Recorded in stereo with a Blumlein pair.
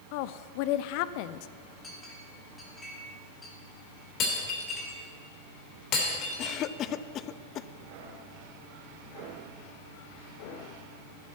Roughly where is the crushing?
I don't hear crushing.